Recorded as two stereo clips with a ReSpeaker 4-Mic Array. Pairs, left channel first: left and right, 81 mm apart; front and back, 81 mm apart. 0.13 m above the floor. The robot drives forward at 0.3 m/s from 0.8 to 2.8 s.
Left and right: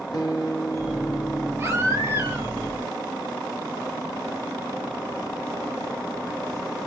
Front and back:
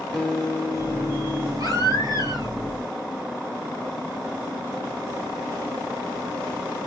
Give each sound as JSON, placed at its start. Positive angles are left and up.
{"t": 0.1, "sound": "a guitar", "azimuth_deg": 85, "distance_m": 1.1}
{"t": 1.6, "sound": "a baby crying", "azimuth_deg": -145, "distance_m": 2.0}